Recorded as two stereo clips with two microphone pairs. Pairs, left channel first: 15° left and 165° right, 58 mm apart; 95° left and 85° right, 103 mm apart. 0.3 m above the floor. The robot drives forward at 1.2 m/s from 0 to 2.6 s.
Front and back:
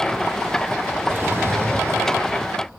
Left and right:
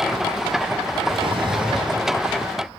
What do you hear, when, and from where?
1.1 s a drawer: 110° right, 3 m; by 2.0 s 130° right, 3.5 m